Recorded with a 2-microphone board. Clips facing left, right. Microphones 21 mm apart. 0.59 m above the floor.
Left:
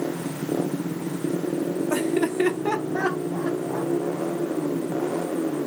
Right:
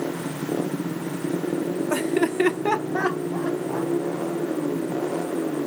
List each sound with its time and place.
1.9 s laughter: 15° right (ahead or behind), 1.0 m; by 3.9 s 10° right (ahead or behind), 1.5 m